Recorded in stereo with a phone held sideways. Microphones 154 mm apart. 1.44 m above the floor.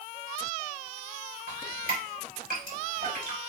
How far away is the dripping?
About 3.5 m.